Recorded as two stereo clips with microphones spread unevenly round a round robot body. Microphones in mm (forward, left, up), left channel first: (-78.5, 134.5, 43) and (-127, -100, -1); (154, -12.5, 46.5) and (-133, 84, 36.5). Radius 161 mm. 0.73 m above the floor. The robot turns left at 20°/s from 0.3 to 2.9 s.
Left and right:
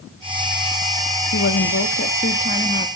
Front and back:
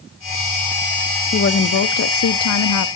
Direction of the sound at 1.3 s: 35° left.